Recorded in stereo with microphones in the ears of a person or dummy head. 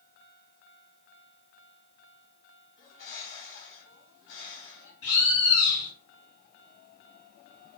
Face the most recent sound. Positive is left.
turn(degrees=50)  # may be behind; listen again after turning